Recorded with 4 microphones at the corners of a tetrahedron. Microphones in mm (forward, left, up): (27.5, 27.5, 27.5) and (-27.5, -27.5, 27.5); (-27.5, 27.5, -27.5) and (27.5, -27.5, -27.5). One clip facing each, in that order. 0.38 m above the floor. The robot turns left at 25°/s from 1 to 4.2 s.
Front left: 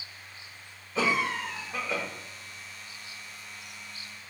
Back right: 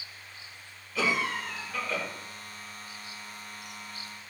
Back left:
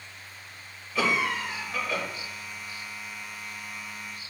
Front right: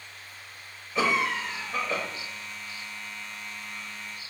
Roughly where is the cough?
Ahead.